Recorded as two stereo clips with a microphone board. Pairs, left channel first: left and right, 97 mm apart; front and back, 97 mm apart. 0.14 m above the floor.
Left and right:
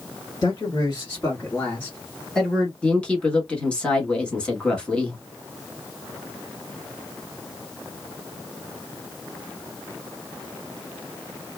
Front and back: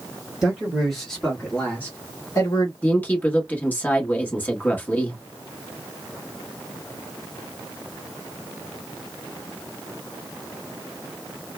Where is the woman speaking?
30° left, 1.0 m.